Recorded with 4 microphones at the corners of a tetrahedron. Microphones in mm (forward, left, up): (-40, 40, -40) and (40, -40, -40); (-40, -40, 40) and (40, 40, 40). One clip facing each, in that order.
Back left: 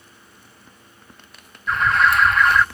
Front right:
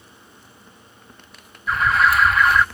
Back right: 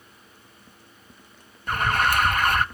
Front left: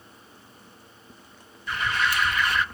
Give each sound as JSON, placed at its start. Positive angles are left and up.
{"t": 1.7, "sound": "an alarm", "azimuth_deg": -135, "distance_m": 0.6}